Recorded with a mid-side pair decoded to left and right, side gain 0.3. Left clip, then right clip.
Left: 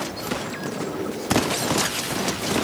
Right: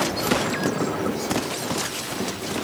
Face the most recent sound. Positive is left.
turn(degrees=-65)